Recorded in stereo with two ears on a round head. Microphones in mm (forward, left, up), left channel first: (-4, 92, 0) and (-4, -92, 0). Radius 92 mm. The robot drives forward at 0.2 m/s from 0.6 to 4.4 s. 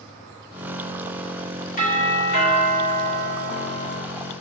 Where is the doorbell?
35° left (ahead or behind), 1.2 m; by 4.0 s 30° left (ahead or behind), 1.4 m.